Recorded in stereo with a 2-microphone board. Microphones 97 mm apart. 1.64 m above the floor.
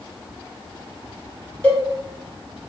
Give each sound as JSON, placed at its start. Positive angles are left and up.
{"t": 1.6, "sound": "a cowbell", "side_deg": 15, "distance_m": 1.5}